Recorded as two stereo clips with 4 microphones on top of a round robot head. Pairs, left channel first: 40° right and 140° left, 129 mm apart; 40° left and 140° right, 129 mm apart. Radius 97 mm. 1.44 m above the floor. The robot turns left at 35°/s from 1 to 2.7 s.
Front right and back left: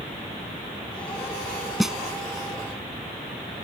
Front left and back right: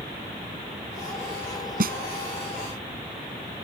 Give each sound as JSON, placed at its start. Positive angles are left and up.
{"t": 1.8, "sound": "a snare drum", "azimuth_deg": -130}